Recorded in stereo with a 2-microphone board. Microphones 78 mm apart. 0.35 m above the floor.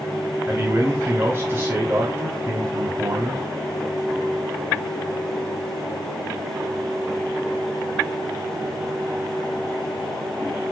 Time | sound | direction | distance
0.5 | a man speaking | 45° right (ahead or behind) | 2.5 m